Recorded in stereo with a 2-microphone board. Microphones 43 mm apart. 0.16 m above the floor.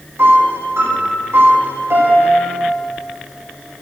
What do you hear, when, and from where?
0.2 s a piano: 70° right (ahead or behind), 5 m